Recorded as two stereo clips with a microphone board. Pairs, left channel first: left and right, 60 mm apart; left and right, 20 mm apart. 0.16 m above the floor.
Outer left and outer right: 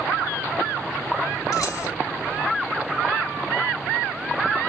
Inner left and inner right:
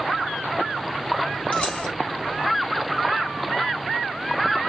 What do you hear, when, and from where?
1.5 s keys jangling: 70° left (ahead or behind), 2 m